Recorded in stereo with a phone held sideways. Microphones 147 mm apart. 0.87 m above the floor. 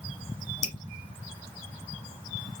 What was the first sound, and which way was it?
Dripping, 50° left (ahead or behind).